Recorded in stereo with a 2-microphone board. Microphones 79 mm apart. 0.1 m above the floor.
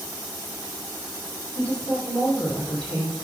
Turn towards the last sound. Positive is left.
turn(degrees=10)  # may be behind; listen again after turning